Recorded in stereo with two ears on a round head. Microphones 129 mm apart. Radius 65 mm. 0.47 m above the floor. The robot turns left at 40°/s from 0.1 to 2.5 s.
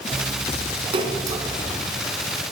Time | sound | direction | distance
0.9 | a splash | 45° right (ahead or behind) | 2.5 m